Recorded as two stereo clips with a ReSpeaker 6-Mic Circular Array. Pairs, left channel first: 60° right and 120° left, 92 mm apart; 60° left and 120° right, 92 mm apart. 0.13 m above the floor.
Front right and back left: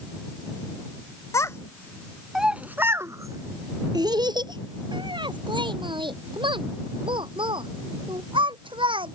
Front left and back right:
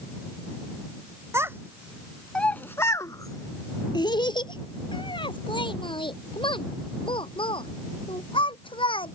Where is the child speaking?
85° right; by 9.1 s 90° left.